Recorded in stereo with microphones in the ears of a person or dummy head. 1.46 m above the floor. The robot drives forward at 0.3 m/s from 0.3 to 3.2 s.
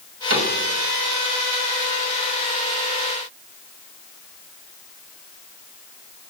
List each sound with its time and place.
0.3 s a cupboard door: 80° right, 1.5 m